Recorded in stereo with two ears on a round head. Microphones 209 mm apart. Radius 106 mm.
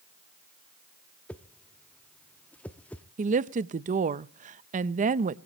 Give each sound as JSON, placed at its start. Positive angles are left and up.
{"t": 1.3, "sound": "a whoosh", "side_deg": 5, "distance_m": 0.5}
{"t": 3.2, "sound": "a woman speaking", "side_deg": -35, "distance_m": 0.5}